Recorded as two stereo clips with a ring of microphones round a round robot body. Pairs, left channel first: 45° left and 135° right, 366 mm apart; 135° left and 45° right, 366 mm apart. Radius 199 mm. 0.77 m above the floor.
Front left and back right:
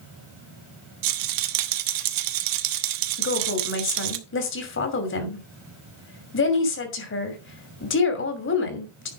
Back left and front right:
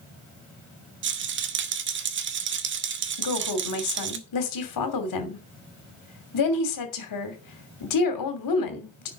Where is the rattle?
105° right, 1.1 m.